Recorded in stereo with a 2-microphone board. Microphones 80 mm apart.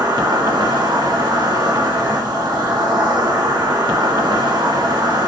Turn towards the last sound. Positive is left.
turn(degrees=-65)  # may be behind; listen again after turning